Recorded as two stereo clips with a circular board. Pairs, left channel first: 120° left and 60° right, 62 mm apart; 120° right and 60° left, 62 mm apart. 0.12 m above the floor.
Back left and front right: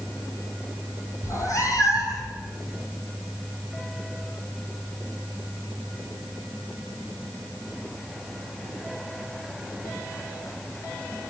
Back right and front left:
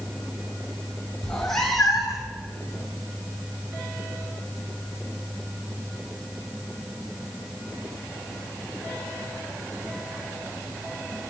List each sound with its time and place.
1.2 s a cat meowing: 160° left, 1.8 m; by 2.3 s 145° left, 3 m